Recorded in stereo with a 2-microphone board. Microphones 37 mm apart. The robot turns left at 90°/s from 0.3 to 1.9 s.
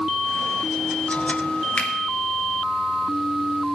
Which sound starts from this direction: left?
A finger snap, at 1.8 s.